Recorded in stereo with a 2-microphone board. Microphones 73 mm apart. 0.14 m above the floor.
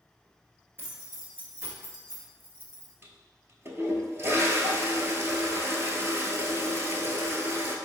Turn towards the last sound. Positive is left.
turn(degrees=-35)  # may be behind; listen again after turning